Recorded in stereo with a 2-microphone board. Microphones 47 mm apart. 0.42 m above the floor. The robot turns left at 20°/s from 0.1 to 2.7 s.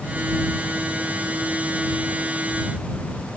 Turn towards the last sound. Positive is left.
No sound to turn to.